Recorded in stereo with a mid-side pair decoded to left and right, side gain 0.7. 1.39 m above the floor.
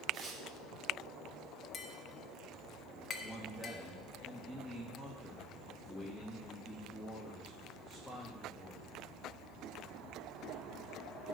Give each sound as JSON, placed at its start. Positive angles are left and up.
{"t": 0.1, "sound": "tearing paper", "azimuth_deg": -25, "distance_m": 3.0}
{"t": 1.7, "sound": "tapping", "azimuth_deg": 35, "distance_m": 1.4}
{"t": 3.2, "sound": "a man speaking", "azimuth_deg": 5, "distance_m": 2.5}